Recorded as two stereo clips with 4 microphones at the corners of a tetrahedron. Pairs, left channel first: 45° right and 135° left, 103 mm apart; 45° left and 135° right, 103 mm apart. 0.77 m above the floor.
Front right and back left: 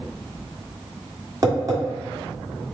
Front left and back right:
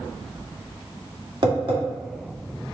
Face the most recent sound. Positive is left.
turn(degrees=-175)